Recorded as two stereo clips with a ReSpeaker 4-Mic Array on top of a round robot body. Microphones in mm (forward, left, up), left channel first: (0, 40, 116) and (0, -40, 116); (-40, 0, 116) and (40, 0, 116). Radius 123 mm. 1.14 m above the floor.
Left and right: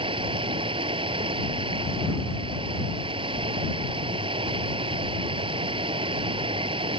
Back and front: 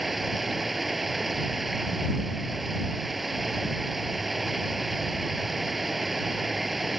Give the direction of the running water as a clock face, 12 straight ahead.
3 o'clock.